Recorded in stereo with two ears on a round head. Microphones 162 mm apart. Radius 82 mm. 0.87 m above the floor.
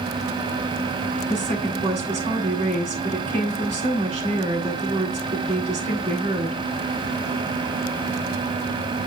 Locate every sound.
1.3 s a woman speaking: 35° right (ahead or behind), 7.5 m